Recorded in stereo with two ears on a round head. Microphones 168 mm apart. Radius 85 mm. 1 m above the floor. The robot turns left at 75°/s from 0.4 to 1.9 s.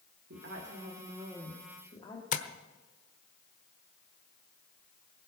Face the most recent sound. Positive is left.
turn(degrees=40)  # may be behind; listen again after turning